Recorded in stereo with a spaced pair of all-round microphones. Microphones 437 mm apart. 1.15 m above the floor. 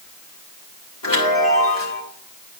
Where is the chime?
50° left (ahead or behind), 2.5 m.